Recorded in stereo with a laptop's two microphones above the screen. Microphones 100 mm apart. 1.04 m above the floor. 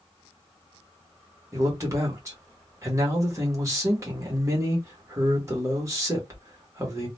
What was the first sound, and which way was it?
A man speaking, 30° right (ahead or behind).